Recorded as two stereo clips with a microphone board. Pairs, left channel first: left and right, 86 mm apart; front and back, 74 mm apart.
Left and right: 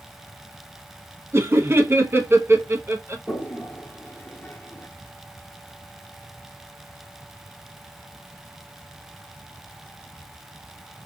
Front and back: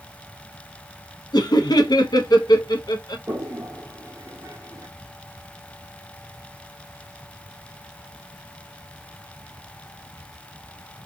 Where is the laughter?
25° right, 0.9 m.